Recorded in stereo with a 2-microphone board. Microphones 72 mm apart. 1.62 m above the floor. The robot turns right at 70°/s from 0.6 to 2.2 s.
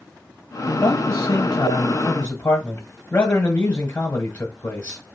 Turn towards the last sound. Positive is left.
turn(degrees=155)